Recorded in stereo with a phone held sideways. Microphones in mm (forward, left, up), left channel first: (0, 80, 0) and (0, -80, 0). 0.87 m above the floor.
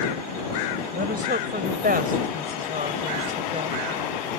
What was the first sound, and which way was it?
A woman speaking, 80° right.